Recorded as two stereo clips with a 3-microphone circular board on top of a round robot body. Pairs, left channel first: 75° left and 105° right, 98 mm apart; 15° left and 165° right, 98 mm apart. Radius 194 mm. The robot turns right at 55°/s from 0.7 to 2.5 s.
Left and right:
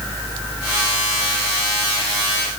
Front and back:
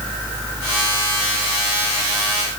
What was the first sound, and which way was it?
Only background noise.